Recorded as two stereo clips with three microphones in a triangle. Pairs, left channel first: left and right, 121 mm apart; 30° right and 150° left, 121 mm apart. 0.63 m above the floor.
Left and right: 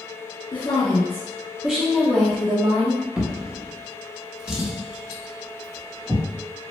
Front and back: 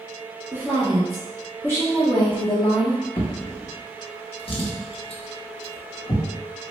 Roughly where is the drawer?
Ahead.